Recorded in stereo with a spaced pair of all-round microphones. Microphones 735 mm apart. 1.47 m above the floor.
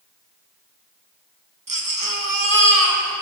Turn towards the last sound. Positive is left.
turn(degrees=-25)  # may be behind; listen again after turning